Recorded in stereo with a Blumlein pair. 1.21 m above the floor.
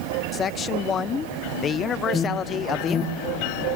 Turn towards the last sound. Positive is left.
turn(degrees=15)